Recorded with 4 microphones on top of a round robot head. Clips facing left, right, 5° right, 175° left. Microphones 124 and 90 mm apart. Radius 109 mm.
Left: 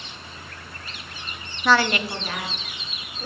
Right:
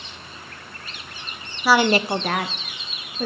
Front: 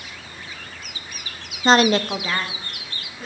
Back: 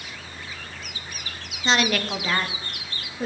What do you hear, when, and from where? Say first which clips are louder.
1.6 s a woman speaking: right 3 dB, front 7 dB; 5° right, 0.6 m; by 3.2 s 115° right, 1.6 m